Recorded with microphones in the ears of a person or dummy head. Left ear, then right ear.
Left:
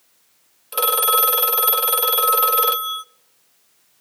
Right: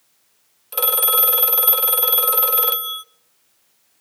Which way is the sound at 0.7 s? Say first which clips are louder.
Left 3 dB; 5° left (ahead or behind).